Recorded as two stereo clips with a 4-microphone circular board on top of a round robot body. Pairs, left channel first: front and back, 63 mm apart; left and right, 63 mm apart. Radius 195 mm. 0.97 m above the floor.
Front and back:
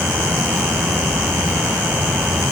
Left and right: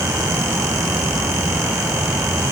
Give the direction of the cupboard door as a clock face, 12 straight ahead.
I don't hear a cupboard door.